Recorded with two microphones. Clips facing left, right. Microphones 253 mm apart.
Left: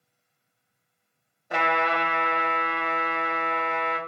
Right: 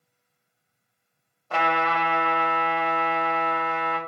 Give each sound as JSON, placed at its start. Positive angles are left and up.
{"t": 1.5, "sound": "a trumpet", "side_deg": 15, "distance_m": 0.8}